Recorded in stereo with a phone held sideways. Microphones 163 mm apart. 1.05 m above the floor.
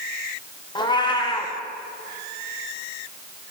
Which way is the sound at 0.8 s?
25° left (ahead or behind).